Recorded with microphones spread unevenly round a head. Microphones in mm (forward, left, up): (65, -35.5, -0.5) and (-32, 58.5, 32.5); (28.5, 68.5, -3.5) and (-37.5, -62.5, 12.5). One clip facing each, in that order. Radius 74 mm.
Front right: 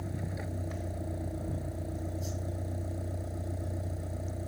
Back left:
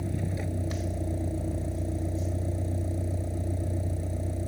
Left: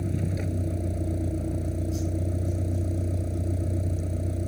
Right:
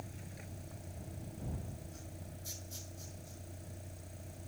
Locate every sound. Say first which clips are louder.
0.0 s a vehicle: back left 6 dB, left 20 dB; 75° left